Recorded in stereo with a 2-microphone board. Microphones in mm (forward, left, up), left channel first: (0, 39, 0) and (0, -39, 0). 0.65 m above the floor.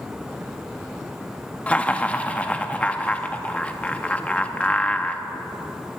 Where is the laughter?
20° left (ahead or behind), 0.5 m.